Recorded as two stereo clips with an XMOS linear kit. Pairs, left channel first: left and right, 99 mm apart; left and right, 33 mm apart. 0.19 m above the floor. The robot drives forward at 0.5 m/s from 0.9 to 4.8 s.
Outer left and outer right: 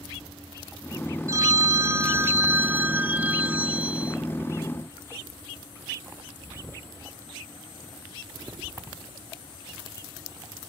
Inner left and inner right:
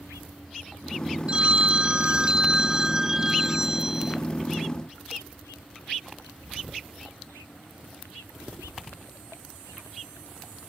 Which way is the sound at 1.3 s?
35° right (ahead or behind).